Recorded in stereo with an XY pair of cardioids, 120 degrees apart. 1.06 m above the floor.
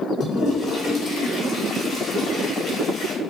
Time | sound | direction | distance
0.2 | a toilet flushing | 65° left | 0.9 m